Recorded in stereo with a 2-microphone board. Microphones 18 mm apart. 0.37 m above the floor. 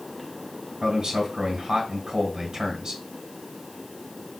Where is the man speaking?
35° right (ahead or behind), 2 m.